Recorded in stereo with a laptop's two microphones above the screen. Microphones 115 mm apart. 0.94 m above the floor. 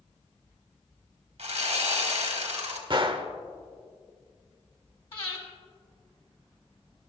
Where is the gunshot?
45° right (ahead or behind), 0.8 m.